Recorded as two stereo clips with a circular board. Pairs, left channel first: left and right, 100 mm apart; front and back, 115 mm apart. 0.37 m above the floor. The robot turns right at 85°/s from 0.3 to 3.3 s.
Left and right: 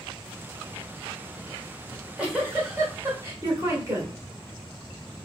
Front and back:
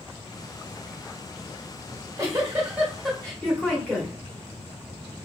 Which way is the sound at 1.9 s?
175° left.